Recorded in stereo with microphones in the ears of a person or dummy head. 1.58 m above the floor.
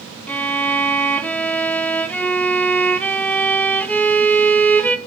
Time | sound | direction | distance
0.3 | a violin | 5° left (ahead or behind) | 1.0 m